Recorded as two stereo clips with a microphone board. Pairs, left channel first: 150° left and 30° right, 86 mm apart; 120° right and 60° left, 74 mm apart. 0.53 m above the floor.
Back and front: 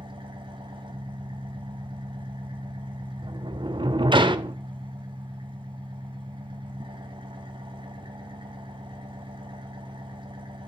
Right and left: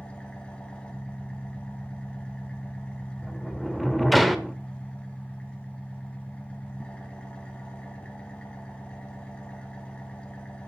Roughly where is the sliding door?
Ahead right.